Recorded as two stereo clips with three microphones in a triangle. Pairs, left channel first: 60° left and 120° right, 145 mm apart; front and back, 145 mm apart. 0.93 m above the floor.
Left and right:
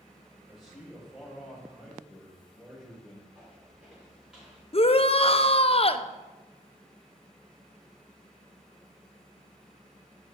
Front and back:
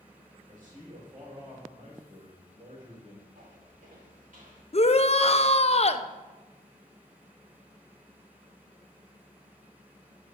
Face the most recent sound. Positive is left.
turn(degrees=25)